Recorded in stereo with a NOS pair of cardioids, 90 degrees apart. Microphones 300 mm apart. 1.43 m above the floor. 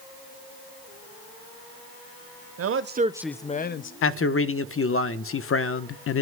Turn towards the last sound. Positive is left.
turn(degrees=45)